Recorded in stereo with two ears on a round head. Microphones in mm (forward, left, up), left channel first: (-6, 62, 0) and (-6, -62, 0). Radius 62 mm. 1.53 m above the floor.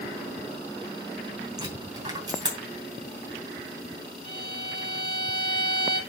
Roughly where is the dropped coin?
Right.